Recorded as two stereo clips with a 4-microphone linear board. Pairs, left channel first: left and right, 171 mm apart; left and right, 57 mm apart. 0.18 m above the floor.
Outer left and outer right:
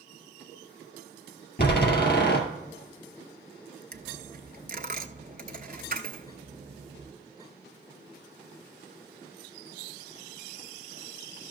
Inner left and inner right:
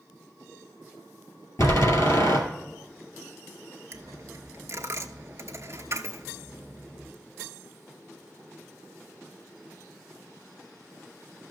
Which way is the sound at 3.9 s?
55° right (ahead or behind).